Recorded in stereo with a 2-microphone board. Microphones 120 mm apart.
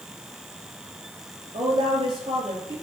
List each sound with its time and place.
1.5 s a woman speaking: 50° right (ahead or behind), 4 m; by 2.7 s 40° right (ahead or behind), 5 m